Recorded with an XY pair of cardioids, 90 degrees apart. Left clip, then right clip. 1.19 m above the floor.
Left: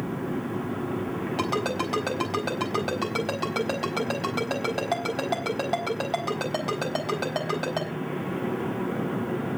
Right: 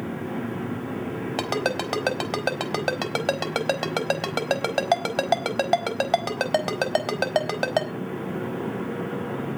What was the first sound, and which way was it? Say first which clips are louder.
A ringtone: right 2 dB; 65° right.